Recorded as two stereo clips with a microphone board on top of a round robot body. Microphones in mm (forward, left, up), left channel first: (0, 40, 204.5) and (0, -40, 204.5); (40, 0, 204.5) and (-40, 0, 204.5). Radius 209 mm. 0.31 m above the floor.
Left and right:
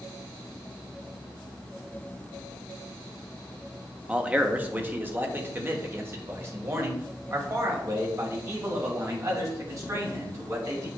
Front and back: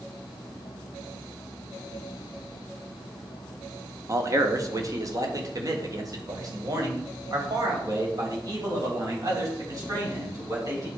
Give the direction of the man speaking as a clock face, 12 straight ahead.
5 o'clock.